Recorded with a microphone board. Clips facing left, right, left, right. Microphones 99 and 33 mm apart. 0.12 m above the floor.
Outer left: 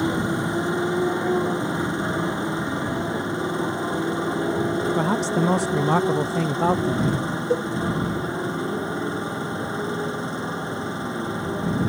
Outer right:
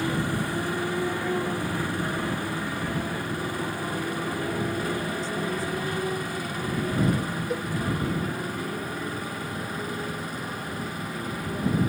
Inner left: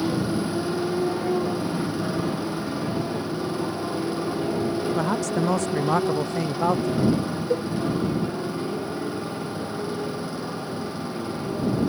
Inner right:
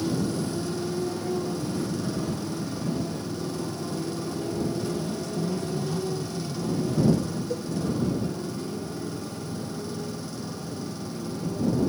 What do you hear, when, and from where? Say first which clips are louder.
0.0 s a motorcycle: outer left 4 dB, inner left 3 dB; 20° left (ahead or behind); by 11.9 s 25° left (ahead or behind)
5.0 s a man speaking: outer left 8 dB, inner left 6 dB; 75° left (ahead or behind)
7.5 s a cowbell: outer left 10 dB, inner left 7 dB; 30° left (ahead or behind)